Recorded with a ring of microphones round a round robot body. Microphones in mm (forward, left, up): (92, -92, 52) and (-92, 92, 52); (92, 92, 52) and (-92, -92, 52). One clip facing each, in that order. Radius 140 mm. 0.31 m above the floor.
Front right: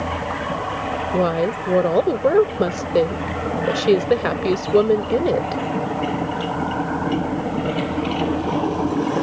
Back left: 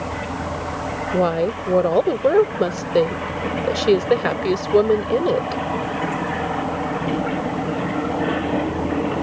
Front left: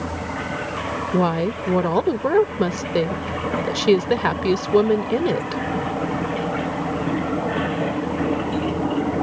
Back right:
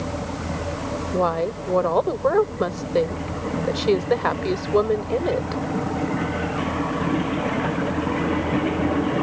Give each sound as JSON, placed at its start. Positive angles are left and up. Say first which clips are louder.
{"t": 1.1, "sound": "a woman speaking", "louder": "even, front left 3 dB", "azimuth_deg": 40}